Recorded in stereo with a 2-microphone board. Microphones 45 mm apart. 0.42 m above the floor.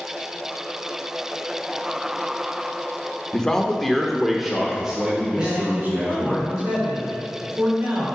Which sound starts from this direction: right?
A man speaking, at 5.3 s.